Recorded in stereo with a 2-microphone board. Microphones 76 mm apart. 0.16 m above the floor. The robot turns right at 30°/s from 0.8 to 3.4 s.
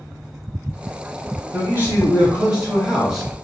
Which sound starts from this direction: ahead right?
A man speaking, at 1.5 s.